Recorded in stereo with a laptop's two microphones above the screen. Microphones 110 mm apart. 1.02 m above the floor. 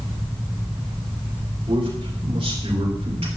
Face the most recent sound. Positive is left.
turn(degrees=-60)  # may be behind; listen again after turning